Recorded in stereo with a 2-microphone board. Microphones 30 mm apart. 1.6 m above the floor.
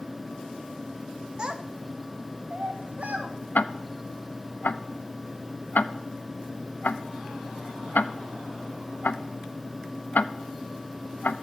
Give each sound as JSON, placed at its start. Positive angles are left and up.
{"t": 1.4, "sound": "a child speaking", "side_deg": -30, "distance_m": 1.1}
{"t": 3.5, "sound": "ticking", "side_deg": 65, "distance_m": 0.5}